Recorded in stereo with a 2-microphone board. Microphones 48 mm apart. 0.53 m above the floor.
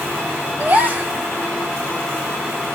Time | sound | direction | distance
0.6 | a gasp | 45° right (ahead or behind) | 1.3 m